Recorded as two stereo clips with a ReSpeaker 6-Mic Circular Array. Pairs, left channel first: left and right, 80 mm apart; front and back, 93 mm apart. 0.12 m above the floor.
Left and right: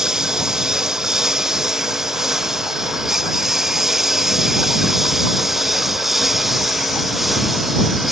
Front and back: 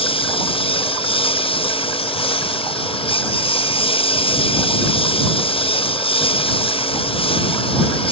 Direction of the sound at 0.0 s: 5° right.